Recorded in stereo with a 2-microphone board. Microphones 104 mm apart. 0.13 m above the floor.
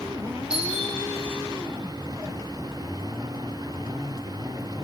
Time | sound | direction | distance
0.5 | a doorbell | 10° right (ahead or behind) | 6 m